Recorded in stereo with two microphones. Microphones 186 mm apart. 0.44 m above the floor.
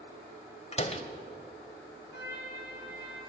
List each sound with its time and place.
0.7 s a door slam: 35° left (ahead or behind), 1.4 m
2.1 s a trumpet: 75° left (ahead or behind), 5.5 m